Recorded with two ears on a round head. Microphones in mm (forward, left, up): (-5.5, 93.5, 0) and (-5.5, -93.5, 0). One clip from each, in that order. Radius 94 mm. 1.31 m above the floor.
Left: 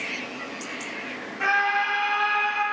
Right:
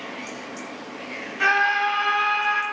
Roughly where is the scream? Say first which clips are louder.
Right 3 dB; right.